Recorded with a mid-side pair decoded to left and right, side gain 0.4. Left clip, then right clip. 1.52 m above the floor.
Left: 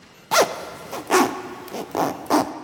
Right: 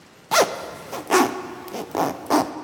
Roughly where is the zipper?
Ahead.